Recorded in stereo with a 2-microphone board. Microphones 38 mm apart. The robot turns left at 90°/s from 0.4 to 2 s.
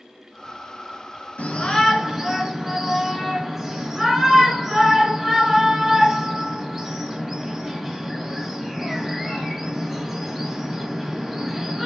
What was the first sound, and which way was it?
A shout, 45° left (ahead or behind).